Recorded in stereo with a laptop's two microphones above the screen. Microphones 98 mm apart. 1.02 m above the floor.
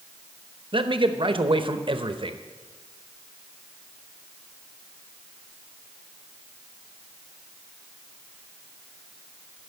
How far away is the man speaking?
About 0.8 m.